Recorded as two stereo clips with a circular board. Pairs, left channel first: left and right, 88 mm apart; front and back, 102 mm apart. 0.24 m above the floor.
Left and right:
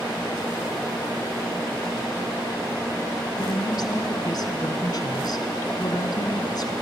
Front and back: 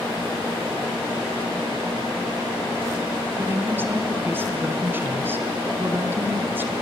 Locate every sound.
3.4 s a woman speaking: 115° left, 1.9 m